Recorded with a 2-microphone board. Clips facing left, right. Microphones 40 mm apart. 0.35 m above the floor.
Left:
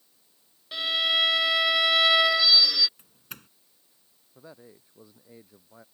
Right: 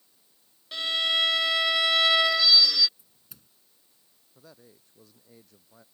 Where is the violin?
5° left (ahead or behind).